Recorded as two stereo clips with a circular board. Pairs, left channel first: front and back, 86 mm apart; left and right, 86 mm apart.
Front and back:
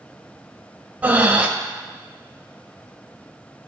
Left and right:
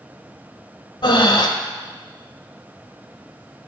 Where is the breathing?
110° left, 0.6 m.